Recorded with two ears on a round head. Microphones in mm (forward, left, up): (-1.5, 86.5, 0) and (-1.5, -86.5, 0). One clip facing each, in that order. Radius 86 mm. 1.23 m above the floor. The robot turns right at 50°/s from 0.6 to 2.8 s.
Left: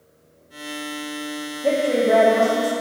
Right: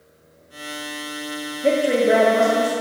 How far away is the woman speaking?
About 0.6 m.